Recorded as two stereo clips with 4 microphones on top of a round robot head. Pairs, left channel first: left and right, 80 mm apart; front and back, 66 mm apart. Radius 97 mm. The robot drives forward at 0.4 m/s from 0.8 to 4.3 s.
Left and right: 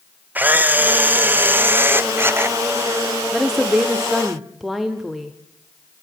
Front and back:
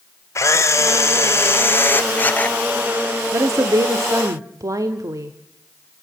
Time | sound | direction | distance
0.3 | a camera shutter | 25° right | 1.7 m
3.3 | a woman speaking | 175° right | 0.9 m